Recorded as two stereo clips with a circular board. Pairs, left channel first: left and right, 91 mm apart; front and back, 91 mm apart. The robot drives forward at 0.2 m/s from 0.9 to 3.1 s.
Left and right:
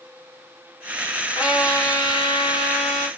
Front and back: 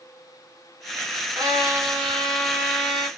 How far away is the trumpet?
About 1.3 m.